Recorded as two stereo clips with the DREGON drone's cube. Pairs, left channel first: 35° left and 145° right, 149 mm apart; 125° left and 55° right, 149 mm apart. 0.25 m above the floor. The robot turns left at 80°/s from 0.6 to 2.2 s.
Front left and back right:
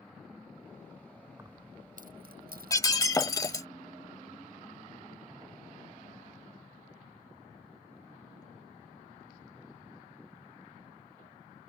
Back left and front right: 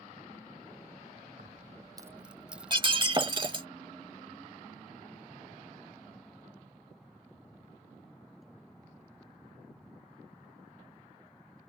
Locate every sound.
1.4 s keys jangling: 75° right; by 3.6 s 140° right
2.7 s breaking glass: 20° right